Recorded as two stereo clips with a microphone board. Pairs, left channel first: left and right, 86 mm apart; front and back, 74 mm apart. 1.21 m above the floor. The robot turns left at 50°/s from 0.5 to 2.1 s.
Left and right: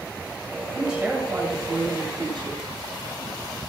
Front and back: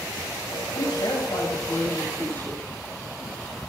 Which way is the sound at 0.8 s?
Straight ahead.